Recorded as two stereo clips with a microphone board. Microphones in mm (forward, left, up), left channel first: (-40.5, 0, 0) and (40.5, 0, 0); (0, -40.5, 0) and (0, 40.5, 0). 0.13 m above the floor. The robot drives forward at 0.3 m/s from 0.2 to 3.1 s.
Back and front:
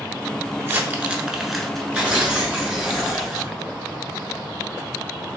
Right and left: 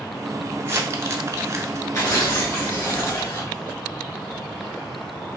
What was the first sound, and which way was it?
Crumpling, 50° left.